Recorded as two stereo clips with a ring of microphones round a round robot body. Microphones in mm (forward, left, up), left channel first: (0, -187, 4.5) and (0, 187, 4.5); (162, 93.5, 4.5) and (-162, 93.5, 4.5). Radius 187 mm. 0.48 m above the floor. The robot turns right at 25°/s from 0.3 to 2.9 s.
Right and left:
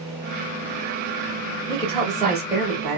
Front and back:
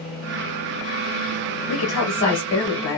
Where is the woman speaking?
25° right, 1.1 m; by 3.0 s 5° left, 1.1 m.